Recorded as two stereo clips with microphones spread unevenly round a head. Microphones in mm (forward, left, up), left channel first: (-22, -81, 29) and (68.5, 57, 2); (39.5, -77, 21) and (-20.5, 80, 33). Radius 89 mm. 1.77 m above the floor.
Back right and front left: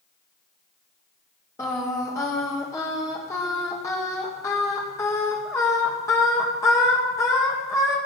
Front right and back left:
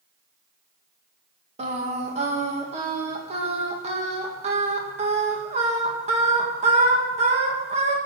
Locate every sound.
1.6 s singing: 165° left, 1.9 m